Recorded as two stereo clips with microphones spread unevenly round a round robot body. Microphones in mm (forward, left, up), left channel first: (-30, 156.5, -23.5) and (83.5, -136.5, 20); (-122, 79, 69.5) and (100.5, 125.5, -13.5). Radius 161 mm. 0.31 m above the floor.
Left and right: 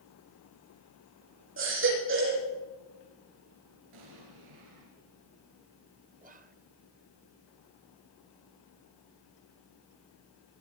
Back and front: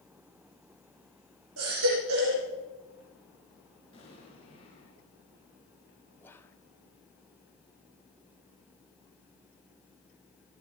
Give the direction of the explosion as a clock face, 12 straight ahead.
3 o'clock.